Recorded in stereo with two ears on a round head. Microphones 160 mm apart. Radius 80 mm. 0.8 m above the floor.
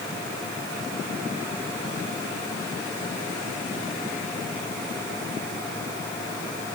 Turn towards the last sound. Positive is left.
No sound to turn to.